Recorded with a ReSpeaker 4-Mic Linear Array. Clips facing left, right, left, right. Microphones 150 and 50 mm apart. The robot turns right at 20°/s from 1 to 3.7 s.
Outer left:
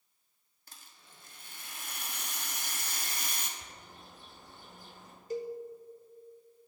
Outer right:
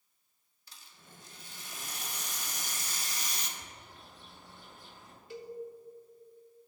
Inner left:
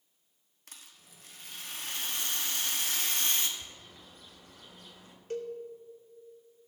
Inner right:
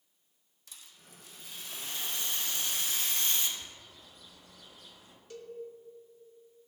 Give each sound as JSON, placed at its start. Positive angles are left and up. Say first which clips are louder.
{"t": 0.7, "sound": "a rattle", "louder": "outer right 2 dB, even", "azimuth_deg": 65, "distance_m": 0.9}
{"t": 3.6, "sound": "a bird", "louder": "even, inner left 1 dB", "side_deg": 40, "distance_m": 1.7}
{"t": 5.3, "sound": "a cowbell", "louder": "outer left 8 dB, inner left 9 dB", "side_deg": 40, "distance_m": 0.7}